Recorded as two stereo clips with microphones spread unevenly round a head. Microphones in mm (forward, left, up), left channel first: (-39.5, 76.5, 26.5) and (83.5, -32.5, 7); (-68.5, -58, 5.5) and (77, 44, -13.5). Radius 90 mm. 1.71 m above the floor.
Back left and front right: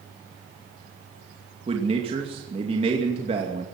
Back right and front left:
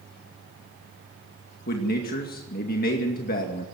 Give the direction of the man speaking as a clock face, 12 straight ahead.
3 o'clock.